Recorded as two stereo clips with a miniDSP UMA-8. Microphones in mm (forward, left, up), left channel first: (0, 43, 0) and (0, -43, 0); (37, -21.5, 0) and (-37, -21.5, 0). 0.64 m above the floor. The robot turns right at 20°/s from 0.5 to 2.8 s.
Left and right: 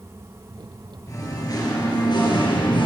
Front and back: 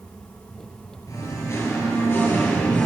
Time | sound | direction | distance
1.1 | singing | 35° left | 7 m